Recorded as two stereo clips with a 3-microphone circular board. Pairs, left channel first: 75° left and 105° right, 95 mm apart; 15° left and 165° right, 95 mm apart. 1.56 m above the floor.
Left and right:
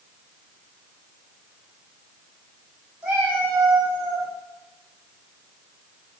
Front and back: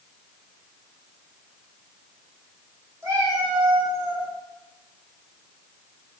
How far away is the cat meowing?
About 1.2 m.